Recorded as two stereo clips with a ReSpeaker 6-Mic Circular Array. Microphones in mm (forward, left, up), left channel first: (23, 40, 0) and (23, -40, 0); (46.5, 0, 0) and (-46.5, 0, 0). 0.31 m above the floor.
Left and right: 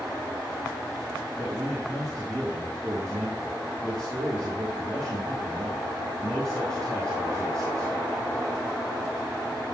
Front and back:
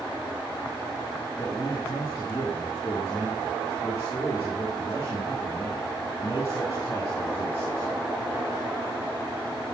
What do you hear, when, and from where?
1.4 s a man speaking: 50° right, 4 m